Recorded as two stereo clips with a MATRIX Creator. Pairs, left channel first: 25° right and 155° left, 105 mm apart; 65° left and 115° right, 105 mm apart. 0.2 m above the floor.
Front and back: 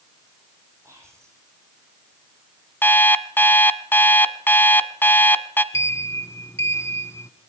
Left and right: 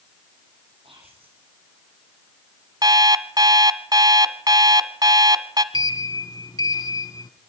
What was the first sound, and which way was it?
Whispering, 140° right.